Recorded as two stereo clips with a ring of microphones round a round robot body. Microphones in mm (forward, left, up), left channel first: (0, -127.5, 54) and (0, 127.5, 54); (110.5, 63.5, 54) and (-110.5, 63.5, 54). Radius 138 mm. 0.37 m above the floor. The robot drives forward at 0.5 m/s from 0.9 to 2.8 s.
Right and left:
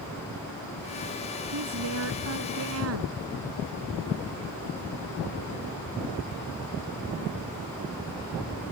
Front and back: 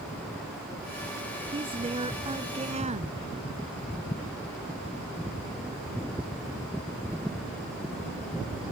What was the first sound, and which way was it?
A woman speaking, 115° left.